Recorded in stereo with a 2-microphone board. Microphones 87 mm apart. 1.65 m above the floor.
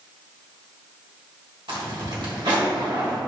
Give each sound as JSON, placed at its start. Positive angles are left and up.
{"t": 1.7, "sound": "a zipper", "side_deg": -65, "distance_m": 1.4}